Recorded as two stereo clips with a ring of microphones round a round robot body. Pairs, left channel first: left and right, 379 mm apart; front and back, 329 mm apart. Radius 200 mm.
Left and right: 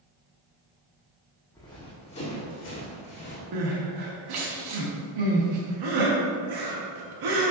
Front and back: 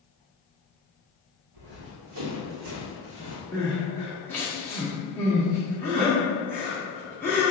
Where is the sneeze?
I don't hear a sneeze.